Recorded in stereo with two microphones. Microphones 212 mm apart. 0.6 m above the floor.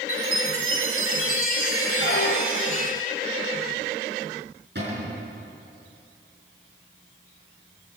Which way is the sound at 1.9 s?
50° left (ahead or behind).